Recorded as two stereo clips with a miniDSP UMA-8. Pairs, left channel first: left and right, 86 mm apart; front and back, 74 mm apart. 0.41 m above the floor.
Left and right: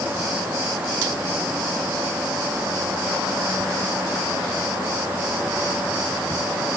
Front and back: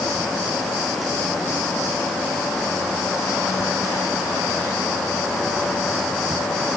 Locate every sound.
Only background noise.